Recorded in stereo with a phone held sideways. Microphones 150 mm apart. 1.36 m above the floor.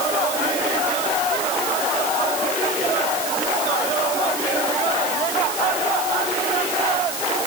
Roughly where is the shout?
No shout in this recording.